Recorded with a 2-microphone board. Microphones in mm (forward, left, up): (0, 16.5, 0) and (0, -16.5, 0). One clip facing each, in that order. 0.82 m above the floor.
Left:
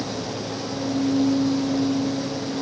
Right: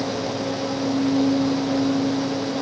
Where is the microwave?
I don't hear a microwave.